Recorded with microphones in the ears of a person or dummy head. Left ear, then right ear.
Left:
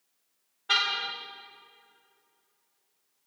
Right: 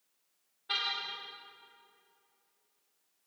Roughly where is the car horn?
Left.